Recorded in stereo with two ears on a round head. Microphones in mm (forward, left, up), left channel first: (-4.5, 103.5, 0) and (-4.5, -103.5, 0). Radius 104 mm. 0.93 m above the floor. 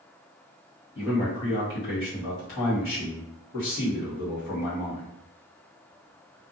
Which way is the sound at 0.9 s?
60° left (ahead or behind).